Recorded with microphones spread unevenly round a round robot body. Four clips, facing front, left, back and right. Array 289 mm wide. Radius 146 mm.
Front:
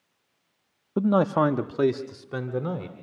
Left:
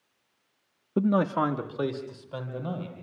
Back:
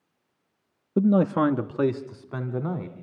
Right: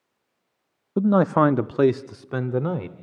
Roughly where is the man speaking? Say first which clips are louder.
Right 6 dB, back 1 dB; behind.